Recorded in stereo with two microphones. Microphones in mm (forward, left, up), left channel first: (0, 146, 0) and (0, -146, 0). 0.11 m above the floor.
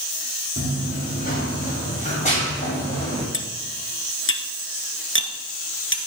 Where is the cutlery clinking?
45° left (ahead or behind), 1.5 m.